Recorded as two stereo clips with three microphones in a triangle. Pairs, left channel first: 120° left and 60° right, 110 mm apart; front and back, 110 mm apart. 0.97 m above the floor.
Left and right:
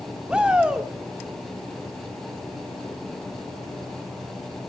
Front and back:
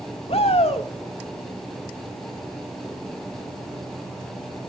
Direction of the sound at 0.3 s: 20° left.